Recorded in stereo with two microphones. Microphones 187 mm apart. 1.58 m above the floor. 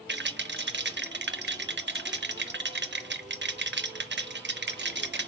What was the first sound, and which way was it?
A rattle, 75° right (ahead or behind).